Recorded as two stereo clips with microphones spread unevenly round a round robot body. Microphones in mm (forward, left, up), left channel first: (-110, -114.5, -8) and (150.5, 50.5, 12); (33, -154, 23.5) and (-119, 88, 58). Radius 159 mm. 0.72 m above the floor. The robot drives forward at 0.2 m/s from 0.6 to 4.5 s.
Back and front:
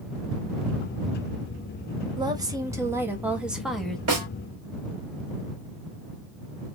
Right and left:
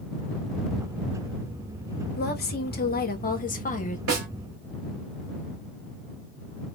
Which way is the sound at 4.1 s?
75° left.